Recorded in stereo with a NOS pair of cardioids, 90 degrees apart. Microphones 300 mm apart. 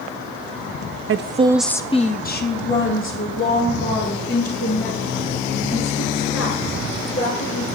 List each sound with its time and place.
1.1 s a woman speaking: 45° right, 0.6 m; by 7.7 s 60° left, 6 m